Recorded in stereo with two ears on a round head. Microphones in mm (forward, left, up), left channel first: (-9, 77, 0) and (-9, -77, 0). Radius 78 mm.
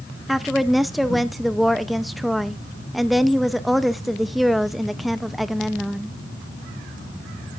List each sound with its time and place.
0.3 s a woman speaking: centre (ahead or behind), 0.6 m